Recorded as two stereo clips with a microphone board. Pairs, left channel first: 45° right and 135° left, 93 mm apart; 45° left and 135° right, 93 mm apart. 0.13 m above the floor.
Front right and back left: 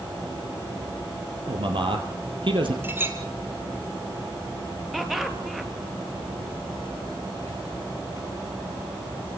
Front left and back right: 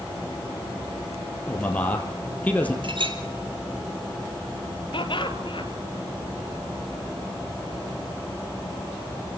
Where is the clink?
160° right, 3 m.